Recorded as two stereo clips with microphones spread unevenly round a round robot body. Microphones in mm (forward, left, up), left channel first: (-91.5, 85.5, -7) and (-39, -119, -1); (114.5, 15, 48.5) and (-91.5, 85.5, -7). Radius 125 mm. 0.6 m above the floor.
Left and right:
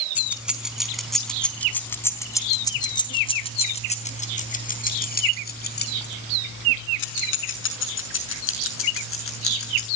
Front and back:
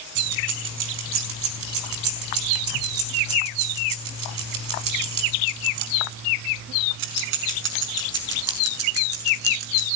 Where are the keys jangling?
160° right, 4.5 m; by 9.8 s 120° left, 6.5 m.